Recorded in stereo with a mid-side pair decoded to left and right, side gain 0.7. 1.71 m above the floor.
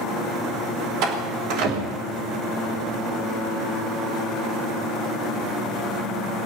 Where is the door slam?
65° right, 4.5 m.